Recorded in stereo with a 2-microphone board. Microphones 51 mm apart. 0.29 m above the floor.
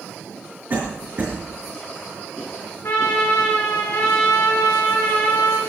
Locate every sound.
0.7 s a cough: 45° right (ahead or behind), 3 m
2.8 s a trumpet: 50° left (ahead or behind), 5.5 m